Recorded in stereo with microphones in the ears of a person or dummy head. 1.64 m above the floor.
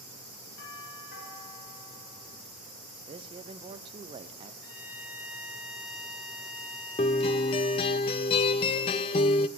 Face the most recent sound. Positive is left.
turn(degrees=30)  # may be behind; listen again after turning